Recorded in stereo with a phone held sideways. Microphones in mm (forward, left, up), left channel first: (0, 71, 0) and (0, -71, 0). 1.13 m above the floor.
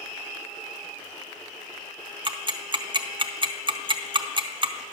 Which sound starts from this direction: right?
Ticking, at 2.2 s.